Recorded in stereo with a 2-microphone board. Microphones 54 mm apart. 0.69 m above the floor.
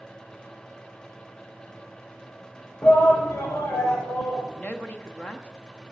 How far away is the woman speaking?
About 0.9 m.